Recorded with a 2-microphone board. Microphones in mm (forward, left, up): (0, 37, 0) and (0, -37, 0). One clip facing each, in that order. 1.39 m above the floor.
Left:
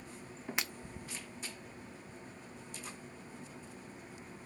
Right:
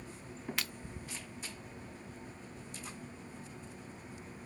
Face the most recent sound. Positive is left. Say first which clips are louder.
# left 2 dB
turn(degrees=20)  # may be behind; listen again after turning